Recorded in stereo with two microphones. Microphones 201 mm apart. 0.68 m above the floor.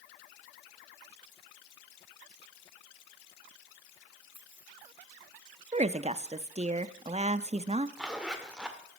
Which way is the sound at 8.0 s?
5° right (ahead or behind).